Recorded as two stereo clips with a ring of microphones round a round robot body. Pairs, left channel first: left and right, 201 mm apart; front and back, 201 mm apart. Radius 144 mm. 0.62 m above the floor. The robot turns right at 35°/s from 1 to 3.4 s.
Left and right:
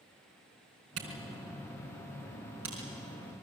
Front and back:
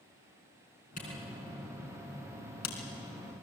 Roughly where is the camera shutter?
Ahead right.